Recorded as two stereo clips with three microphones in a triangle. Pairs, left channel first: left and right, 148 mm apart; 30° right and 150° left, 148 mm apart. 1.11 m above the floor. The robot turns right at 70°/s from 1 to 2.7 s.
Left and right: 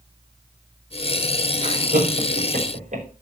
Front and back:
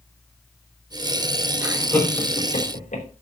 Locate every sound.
1.6 s laughter: 135° right, 4.5 m; by 3.0 s 60° right, 4.5 m